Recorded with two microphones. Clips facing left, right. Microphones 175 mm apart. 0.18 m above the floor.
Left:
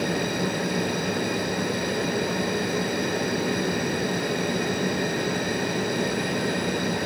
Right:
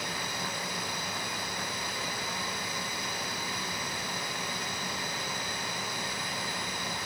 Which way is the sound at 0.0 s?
60° left (ahead or behind).